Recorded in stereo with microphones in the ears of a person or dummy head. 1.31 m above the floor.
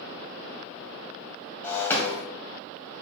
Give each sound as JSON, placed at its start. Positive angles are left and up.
{"t": 1.6, "sound": "breaking glass", "side_deg": 10, "distance_m": 2.0}